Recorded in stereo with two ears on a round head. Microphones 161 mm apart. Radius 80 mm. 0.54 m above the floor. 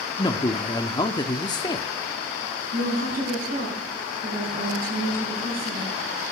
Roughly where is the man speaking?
Left.